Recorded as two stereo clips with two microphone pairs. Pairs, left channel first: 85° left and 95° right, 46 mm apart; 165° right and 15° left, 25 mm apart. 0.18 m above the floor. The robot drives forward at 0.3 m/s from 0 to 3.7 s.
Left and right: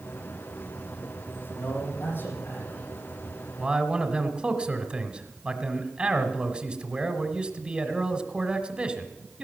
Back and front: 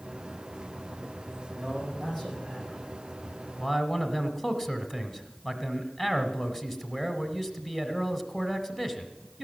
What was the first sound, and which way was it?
A man speaking, 115° left.